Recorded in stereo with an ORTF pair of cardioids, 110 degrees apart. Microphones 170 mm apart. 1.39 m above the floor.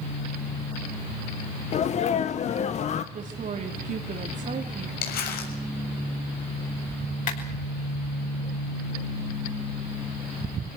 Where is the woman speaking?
45° right, 3.5 m.